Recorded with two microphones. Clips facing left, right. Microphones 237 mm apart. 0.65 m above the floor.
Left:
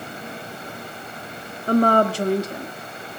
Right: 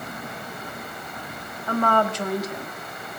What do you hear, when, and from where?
1.7 s a woman speaking: 40° left (ahead or behind), 0.8 m; by 2.7 s 25° left (ahead or behind), 1.2 m